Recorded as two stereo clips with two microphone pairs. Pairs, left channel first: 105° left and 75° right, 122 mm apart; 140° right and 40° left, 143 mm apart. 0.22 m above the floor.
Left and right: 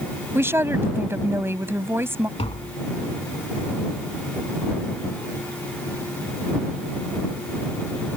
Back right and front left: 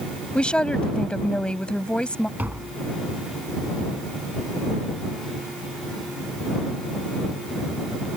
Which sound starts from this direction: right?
A woman speaking, at 0.3 s.